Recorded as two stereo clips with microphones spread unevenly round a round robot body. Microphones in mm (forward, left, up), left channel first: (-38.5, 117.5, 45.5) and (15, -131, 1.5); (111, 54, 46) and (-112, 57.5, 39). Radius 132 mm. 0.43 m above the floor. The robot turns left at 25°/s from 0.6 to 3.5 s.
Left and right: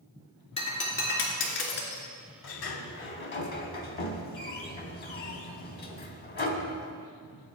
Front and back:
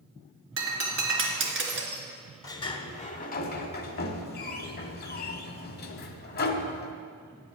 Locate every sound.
0.6 s breaking glass: 170° left, 2.0 m; by 2.0 s 135° left, 2.0 m
2.4 s a sliding door: 75° left, 0.8 m; by 6.9 s 45° left, 0.8 m